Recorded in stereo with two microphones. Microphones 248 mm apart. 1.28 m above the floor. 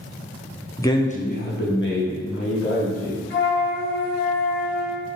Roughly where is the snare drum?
I don't hear a snare drum.